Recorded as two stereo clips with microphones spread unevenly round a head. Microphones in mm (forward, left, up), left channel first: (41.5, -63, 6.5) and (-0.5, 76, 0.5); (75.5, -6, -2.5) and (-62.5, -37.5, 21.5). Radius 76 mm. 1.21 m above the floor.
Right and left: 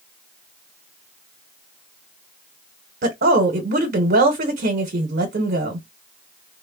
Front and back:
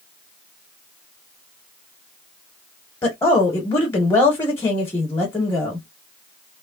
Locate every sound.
3.0 s a woman speaking: 85° left, 0.9 m